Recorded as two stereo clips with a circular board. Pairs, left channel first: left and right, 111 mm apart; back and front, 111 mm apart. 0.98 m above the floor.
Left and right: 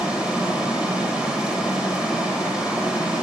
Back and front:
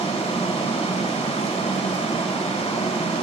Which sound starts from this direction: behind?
Running water, at 0.0 s.